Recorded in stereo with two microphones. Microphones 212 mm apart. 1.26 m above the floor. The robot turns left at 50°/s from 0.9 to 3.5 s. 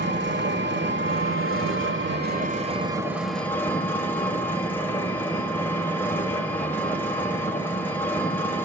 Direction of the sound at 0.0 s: 60° right.